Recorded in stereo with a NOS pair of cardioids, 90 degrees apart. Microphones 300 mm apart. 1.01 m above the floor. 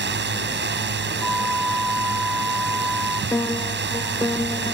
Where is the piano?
10° left.